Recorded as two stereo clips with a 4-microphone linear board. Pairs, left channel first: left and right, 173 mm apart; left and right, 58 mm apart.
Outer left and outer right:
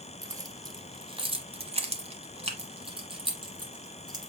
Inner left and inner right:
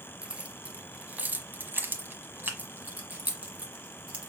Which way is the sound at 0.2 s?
20° right (ahead or behind).